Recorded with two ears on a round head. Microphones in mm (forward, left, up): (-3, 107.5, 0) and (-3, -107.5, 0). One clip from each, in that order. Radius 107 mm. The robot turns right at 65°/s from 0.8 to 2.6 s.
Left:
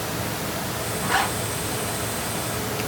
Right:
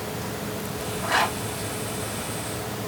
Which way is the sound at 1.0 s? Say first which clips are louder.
Even; 20° left (ahead or behind).